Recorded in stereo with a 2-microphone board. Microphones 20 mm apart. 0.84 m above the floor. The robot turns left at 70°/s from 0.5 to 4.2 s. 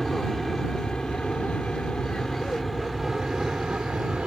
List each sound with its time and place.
0.0 s an aircraft: 20° left (ahead or behind); by 4.3 s 60° right (ahead or behind)